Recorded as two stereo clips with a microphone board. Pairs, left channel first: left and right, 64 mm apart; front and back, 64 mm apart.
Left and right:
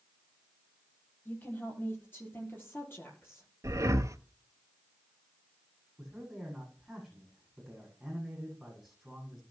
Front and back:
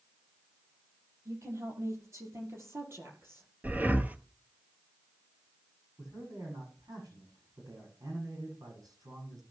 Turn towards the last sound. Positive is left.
turn(degrees=175)